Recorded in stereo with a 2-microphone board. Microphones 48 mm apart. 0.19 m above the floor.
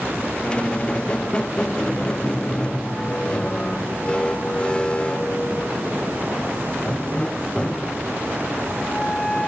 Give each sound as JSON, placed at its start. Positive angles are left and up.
{"t": 0.4, "sound": "a squeak", "side_deg": 20}